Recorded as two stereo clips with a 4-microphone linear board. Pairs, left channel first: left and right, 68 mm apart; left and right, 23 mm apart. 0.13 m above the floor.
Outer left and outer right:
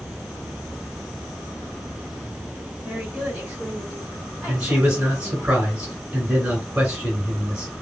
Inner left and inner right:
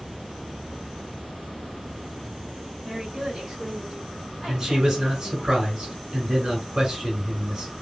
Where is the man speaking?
20° right (ahead or behind), 1.7 m.